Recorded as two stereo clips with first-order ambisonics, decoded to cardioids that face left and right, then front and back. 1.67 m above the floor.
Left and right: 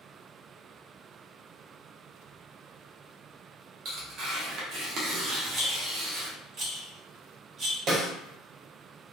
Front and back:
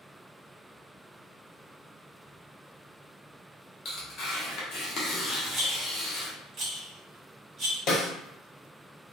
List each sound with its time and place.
3.9 s tearing paper: 45° right, 0.8 m
5.5 s a rattle: 125° right, 1.0 m
7.9 s a snare drum: 35° right, 0.6 m